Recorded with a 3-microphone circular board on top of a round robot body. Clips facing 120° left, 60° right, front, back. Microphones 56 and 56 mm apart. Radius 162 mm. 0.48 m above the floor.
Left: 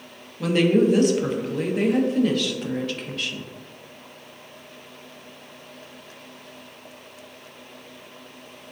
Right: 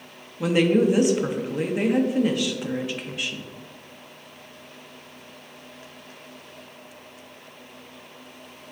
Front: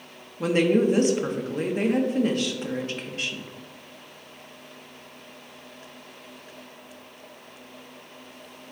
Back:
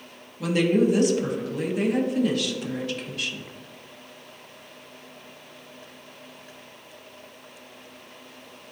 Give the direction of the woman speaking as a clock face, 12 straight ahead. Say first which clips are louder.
Left 1 dB, front 1 dB; 12 o'clock.